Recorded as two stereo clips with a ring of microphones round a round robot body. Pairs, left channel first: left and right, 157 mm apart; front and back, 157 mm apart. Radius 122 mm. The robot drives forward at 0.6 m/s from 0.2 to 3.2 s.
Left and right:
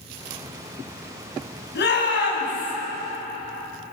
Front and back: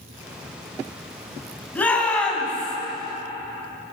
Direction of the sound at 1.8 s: 80° left.